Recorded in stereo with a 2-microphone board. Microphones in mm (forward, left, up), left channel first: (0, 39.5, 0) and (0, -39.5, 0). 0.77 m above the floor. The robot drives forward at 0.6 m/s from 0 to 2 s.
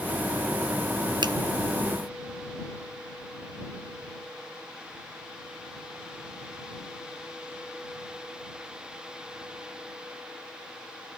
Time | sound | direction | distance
1.2 | a finger snap | 65° right (ahead or behind) | 0.7 m